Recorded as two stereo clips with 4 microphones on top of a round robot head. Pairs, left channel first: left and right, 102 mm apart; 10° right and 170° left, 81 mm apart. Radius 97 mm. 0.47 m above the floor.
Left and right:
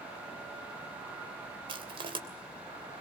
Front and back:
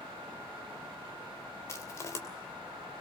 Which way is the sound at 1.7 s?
60° right.